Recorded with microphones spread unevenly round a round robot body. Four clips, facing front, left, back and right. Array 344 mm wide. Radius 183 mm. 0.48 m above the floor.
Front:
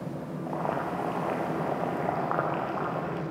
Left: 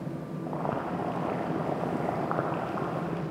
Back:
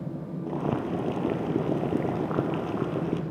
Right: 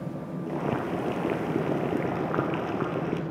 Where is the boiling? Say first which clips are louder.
Right 2 dB, back 2 dB; 165° right, 1.7 m.